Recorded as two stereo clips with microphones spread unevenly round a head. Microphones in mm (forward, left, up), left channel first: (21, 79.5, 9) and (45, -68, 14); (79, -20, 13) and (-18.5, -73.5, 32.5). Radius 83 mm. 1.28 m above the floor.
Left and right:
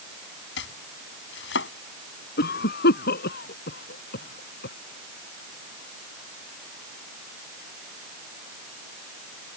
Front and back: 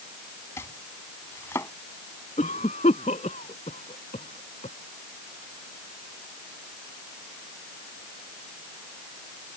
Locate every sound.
0.6 s chopping: 105° left
2.4 s a cough: 80° left